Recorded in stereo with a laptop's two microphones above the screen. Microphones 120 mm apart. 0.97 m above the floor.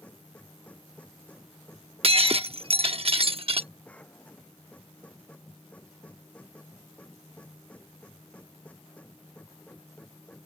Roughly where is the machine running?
Centre.